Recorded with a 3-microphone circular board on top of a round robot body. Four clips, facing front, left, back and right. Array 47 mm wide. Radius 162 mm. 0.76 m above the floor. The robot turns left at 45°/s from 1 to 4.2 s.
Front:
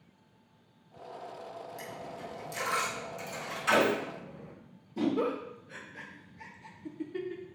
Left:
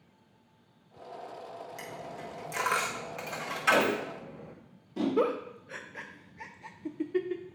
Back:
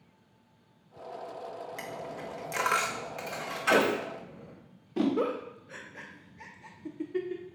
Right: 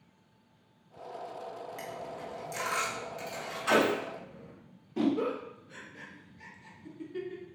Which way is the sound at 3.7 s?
140° right.